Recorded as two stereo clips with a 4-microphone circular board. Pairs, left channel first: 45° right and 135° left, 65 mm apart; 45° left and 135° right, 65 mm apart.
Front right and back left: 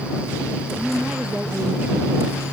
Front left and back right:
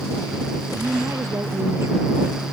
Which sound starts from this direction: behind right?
A woman speaking, at 0.7 s.